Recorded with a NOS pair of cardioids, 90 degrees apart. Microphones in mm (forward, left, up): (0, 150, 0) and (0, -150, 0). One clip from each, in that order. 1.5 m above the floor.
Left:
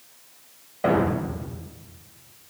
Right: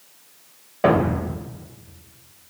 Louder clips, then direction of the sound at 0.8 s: Right 3 dB; 45° right.